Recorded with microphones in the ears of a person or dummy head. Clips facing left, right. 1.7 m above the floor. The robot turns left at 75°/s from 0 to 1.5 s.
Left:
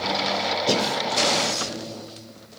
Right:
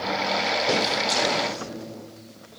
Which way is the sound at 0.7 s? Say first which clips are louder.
Left 2 dB; 15° left (ahead or behind).